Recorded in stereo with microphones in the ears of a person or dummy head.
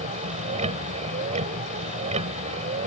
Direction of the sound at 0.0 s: 35° right (ahead or behind).